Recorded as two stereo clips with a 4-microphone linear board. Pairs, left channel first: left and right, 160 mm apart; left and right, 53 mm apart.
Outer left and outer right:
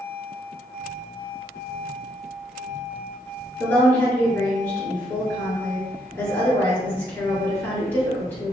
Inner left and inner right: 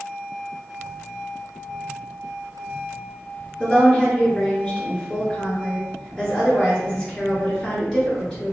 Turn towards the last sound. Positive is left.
turn(degrees=10)  # may be behind; listen again after turning